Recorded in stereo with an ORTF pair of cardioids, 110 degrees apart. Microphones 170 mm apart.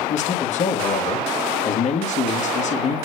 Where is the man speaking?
45° left, 2 m.